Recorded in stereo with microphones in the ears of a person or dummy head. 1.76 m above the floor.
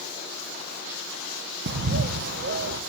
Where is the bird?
60° right (ahead or behind), 0.6 m.